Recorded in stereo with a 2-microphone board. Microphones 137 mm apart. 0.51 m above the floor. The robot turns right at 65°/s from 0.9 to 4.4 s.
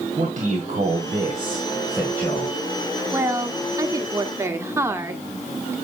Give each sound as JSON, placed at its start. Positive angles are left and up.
{"t": 0.2, "sound": "a man speaking", "azimuth_deg": -75, "distance_m": 2.0}
{"t": 3.1, "sound": "a woman speaking", "side_deg": -20, "distance_m": 1.3}